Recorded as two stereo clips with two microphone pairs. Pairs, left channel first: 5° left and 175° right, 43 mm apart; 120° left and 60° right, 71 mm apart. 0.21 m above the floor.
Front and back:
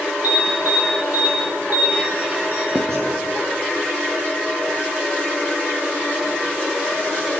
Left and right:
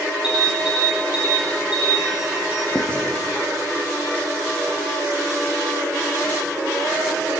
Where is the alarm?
135° right, 7 m.